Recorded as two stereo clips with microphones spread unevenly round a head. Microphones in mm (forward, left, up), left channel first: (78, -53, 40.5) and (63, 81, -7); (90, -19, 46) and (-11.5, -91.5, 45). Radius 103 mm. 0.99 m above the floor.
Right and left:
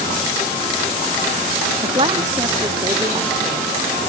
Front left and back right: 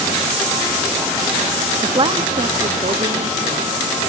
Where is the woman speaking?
155° left; by 4.0 s 170° left.